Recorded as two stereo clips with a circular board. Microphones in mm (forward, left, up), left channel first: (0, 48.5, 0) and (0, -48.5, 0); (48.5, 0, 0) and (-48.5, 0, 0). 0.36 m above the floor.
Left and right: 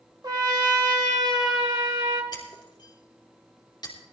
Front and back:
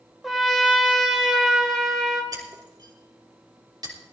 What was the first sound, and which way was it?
A trumpet, 95° right.